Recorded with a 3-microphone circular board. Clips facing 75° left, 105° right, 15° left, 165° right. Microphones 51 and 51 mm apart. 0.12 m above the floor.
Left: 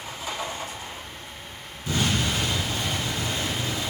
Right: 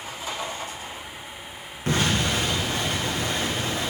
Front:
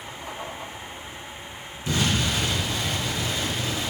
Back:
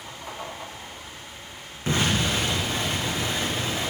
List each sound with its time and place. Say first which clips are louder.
1.9 s an explosion: right 2 dB, back 1 dB; 120° right, 3 m